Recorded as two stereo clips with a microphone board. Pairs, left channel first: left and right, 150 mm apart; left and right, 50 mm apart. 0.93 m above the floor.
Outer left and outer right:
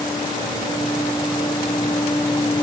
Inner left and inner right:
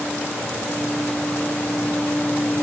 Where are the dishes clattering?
No dishes clattering in this recording.